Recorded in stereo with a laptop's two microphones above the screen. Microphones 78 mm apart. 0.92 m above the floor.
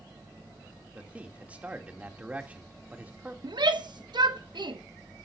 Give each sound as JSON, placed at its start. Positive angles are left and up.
{"t": 0.9, "sound": "a man speaking", "side_deg": -20, "distance_m": 2.0}
{"t": 3.4, "sound": "a shout", "side_deg": -70, "distance_m": 1.2}